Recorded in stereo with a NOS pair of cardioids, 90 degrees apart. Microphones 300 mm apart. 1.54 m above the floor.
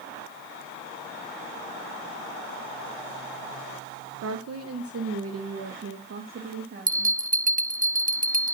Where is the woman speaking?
60° right, 1.2 m; by 7.2 s 40° right, 3 m.